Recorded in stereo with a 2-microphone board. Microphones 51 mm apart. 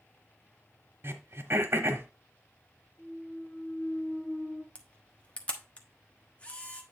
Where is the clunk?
30° left (ahead or behind), 6 m.